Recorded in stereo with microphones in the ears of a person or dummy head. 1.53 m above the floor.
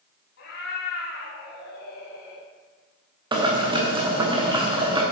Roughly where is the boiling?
Right.